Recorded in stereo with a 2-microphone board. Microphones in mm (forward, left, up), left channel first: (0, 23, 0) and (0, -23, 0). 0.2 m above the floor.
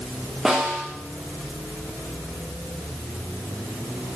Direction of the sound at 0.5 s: 10° right (ahead or behind).